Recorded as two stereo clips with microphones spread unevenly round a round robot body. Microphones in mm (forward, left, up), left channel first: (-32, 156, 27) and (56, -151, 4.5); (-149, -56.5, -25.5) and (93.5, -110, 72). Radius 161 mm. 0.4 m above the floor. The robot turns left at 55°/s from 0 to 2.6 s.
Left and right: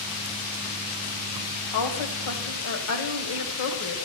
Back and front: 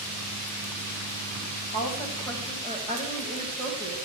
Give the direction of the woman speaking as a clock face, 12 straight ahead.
8 o'clock.